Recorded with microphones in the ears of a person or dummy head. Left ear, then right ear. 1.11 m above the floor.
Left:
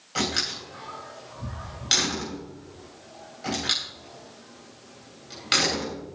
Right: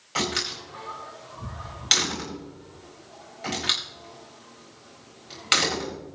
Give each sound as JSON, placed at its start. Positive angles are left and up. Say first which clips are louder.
{"t": 0.1, "sound": "a door slam", "louder": "even", "side_deg": -30, "distance_m": 4.0}